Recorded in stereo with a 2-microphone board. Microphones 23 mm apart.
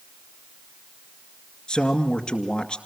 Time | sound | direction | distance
1.7 | a man speaking | 35° left (ahead or behind) | 2 m